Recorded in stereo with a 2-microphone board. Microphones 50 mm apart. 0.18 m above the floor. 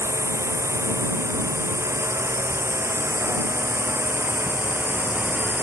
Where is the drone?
70° right (ahead or behind); by 5.6 s 40° right (ahead or behind).